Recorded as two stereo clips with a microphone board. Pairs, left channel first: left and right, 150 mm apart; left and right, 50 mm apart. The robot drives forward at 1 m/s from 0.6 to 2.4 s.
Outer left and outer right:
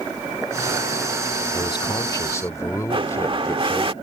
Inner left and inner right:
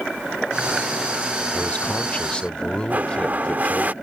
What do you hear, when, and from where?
1.5 s a man speaking: 30° left (ahead or behind); by 3.9 s 20° left (ahead or behind)
2.9 s a blender: 35° right (ahead or behind)